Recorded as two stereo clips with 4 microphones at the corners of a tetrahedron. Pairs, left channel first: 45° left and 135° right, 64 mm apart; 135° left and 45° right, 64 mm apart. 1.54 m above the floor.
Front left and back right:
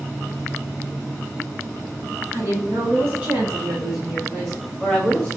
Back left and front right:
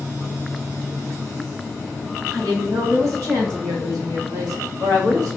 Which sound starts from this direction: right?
A woman speaking, at 2.3 s.